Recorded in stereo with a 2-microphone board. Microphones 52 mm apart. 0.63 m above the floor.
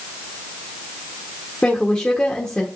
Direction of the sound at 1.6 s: 20° left (ahead or behind).